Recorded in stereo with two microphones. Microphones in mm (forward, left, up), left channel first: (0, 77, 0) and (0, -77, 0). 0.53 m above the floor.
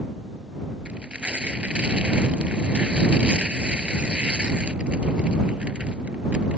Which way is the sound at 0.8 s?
5° right (ahead or behind).